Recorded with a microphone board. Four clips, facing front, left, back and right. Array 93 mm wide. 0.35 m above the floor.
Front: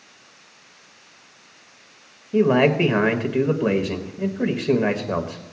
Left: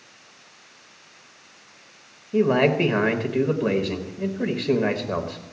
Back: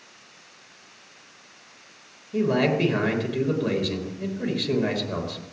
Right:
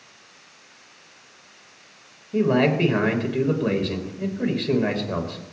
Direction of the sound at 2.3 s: 15° left.